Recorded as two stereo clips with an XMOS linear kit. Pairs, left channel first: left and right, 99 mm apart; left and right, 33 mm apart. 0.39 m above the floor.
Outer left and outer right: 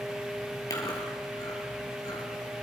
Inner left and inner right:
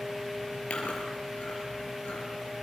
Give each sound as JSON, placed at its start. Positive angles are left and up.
{"t": 0.7, "sound": "chewing", "side_deg": 40, "distance_m": 4.5}